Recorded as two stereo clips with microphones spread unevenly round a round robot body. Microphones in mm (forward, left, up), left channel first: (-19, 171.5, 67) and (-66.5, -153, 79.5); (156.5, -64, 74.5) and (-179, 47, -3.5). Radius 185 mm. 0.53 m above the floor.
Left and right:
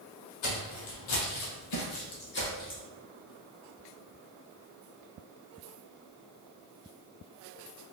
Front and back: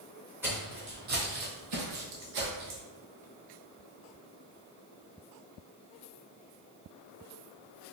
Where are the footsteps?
70° left, 1.5 m; by 2.8 s 150° left, 1.5 m.